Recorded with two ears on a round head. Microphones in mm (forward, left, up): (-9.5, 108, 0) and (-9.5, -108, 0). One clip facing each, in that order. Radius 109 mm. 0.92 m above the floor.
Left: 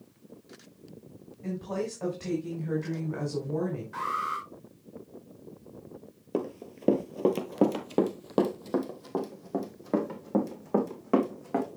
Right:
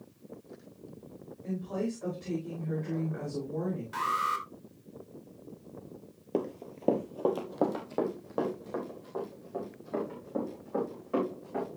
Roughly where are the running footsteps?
Centre.